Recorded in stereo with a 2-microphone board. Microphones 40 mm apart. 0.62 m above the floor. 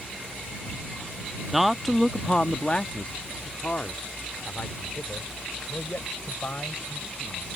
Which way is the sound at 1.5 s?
10° right (ahead or behind).